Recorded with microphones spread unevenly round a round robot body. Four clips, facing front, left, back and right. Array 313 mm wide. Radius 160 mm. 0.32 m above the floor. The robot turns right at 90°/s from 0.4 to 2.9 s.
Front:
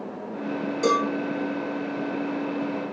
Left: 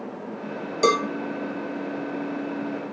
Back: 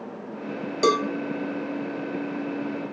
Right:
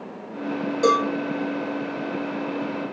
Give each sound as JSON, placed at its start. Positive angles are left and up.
{"t": 0.8, "sound": "a cowbell", "azimuth_deg": 150, "distance_m": 0.9}